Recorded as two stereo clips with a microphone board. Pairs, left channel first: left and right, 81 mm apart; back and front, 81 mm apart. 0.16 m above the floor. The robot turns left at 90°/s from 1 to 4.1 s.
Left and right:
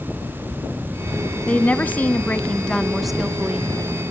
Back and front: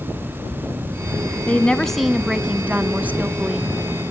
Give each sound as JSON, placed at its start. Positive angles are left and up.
{"t": 1.5, "sound": "a woman speaking", "azimuth_deg": 140, "distance_m": 1.0}